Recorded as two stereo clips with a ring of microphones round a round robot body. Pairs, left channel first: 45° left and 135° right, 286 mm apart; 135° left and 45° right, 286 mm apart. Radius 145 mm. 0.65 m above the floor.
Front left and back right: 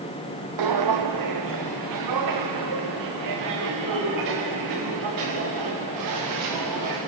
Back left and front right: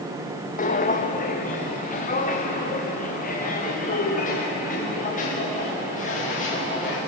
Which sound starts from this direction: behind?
Footsteps, at 0.6 s.